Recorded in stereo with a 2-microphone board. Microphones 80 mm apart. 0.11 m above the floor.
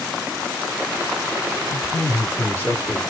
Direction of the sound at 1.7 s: 45° left (ahead or behind).